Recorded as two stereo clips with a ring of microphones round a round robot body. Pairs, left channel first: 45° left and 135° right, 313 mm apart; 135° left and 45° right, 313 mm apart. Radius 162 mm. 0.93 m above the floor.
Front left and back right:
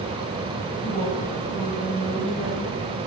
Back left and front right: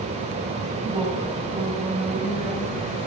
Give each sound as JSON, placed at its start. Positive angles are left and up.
{"t": 0.8, "sound": "a woman speaking", "azimuth_deg": -15, "distance_m": 4.5}